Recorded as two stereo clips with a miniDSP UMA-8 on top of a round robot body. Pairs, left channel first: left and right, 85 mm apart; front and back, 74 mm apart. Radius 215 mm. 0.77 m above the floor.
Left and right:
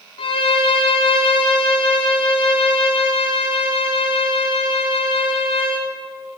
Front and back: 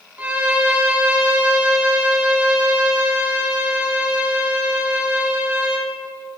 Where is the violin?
105° left, 0.9 m.